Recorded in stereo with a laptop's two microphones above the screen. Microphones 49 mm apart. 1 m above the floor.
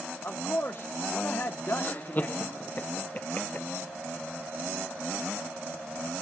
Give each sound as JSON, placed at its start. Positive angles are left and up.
{"t": 0.2, "sound": "a man speaking", "side_deg": 50, "distance_m": 1.0}
{"t": 1.8, "sound": "laughter", "side_deg": 35, "distance_m": 0.8}